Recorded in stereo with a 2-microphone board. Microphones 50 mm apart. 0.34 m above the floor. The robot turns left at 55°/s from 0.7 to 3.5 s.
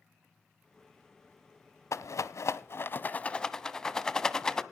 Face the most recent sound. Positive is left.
turn(degrees=15)  # may be behind; listen again after turning